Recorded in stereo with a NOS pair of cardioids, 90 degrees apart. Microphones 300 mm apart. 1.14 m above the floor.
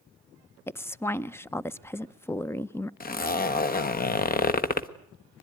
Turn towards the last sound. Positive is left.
turn(degrees=30)